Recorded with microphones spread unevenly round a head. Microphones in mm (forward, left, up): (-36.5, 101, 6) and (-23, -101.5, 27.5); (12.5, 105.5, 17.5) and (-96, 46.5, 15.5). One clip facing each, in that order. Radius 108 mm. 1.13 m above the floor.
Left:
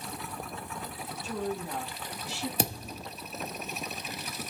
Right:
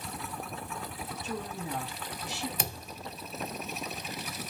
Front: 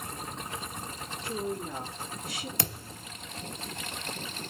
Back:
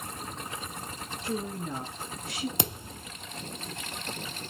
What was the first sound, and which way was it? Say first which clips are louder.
A woman speaking: left 5 dB, even; 165° right.